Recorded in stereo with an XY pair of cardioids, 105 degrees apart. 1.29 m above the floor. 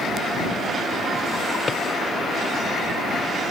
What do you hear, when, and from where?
1.7 s a drawer: 25° left